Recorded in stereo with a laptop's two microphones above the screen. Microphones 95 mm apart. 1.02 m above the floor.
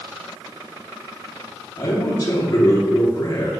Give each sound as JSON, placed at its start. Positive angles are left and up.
{"t": 1.8, "sound": "a man speaking", "side_deg": 40, "distance_m": 2.0}